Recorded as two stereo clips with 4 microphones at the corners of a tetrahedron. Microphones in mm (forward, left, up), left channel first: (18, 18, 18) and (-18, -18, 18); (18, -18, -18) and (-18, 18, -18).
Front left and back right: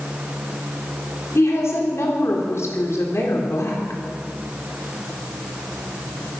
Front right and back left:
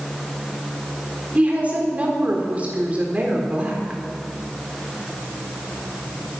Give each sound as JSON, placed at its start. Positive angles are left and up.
{"t": 1.4, "sound": "a woman speaking", "azimuth_deg": 75, "distance_m": 3.5}